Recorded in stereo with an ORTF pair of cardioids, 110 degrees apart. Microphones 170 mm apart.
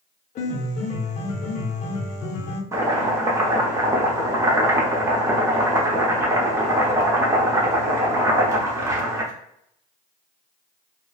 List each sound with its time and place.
0.3 s a piano: 45° left, 0.7 m
2.7 s chopping: 20° right, 0.8 m